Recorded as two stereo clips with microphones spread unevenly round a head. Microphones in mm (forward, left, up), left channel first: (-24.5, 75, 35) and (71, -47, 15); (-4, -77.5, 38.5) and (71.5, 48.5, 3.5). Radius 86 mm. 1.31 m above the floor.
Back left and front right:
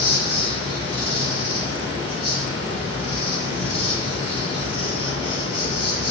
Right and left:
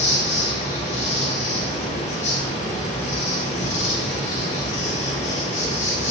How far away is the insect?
About 3 m.